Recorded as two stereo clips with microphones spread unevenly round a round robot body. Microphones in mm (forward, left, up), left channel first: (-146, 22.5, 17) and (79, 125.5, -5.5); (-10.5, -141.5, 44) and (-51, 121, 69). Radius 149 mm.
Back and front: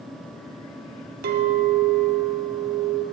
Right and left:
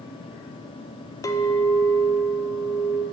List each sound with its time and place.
1.2 s a clink: 10° right, 0.6 m